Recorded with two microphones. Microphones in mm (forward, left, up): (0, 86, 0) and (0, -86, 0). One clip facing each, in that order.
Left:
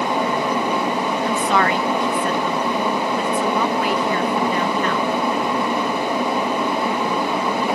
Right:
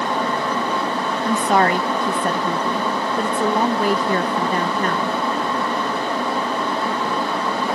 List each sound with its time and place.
1.2 s a woman speaking: 40° right (ahead or behind)